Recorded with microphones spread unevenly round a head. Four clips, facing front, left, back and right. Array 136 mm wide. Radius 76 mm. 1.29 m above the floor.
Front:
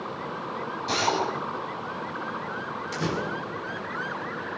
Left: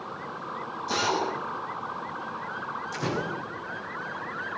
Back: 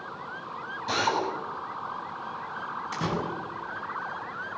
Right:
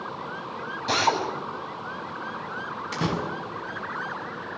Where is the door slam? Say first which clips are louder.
Right 4 dB, front 1 dB; 95° right, 7 m.